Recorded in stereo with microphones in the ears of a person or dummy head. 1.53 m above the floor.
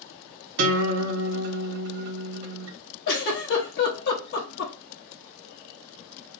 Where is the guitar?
75° right (ahead or behind), 1.4 m.